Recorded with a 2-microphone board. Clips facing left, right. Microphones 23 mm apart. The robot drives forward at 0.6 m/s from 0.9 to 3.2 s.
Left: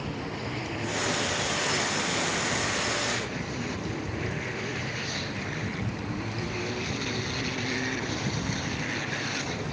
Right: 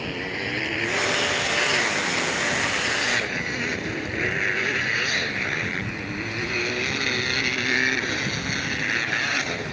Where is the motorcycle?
65° right (ahead or behind); by 9.7 s 40° right (ahead or behind).